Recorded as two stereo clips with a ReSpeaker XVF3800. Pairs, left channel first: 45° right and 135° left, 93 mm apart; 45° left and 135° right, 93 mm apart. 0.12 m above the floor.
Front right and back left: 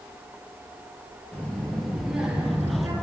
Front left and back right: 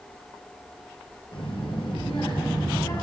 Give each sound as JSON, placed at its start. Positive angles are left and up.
{"t": 1.3, "sound": "a child speaking", "azimuth_deg": 25, "distance_m": 1.5}